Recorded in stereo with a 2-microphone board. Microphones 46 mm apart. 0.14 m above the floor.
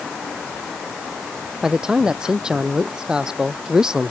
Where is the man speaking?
15° right (ahead or behind).